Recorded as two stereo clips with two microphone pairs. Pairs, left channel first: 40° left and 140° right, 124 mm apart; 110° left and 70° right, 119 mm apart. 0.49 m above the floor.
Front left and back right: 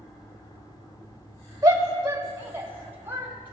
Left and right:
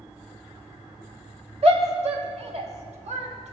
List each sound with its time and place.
1.6 s a shout: 80° right, 1.7 m; by 3.5 s 65° right, 3 m